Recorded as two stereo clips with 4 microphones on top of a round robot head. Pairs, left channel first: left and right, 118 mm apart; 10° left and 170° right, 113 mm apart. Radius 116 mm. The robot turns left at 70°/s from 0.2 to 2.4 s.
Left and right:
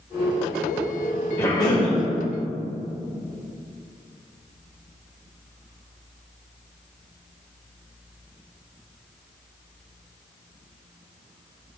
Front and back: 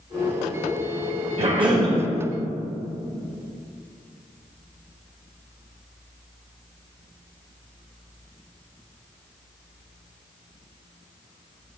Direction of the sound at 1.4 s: 165° left.